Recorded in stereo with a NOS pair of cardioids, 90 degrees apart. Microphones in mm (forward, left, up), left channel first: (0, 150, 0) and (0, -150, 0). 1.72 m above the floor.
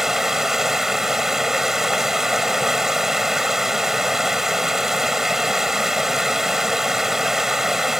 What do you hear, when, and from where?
0.0 s running water: straight ahead